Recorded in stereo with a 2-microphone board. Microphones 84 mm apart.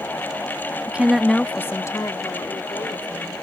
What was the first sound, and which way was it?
A woman speaking, 20° right (ahead or behind).